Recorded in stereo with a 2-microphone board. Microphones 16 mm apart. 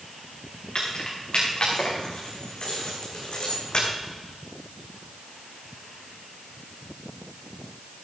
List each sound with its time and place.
0.8 s keys jangling: 70° left (ahead or behind), 6.5 m